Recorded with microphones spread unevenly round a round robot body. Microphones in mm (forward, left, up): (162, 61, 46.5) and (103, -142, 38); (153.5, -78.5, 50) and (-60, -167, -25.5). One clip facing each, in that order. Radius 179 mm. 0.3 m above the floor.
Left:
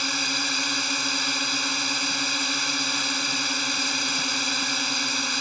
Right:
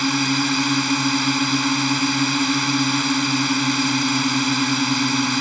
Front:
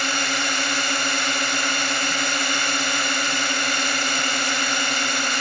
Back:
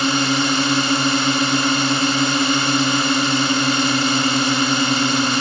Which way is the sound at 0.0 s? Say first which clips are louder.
Right 13 dB, back 11 dB; 135° right.